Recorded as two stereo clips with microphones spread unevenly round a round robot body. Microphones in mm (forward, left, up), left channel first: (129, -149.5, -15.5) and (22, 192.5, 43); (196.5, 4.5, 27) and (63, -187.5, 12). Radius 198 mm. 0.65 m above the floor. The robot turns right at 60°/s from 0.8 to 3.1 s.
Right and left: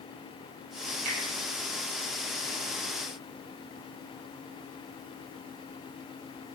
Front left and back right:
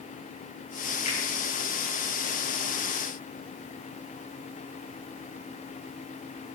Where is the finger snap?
65° left, 6 m; by 1.2 s 70° left, 6 m.